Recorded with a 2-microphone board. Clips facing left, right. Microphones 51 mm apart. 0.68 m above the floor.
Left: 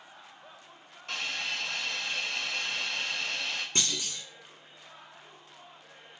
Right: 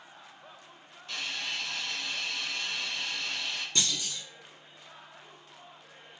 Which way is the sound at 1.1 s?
65° left (ahead or behind).